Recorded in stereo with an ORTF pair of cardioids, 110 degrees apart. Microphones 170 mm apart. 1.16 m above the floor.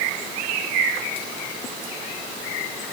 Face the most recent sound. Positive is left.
No sound to turn to.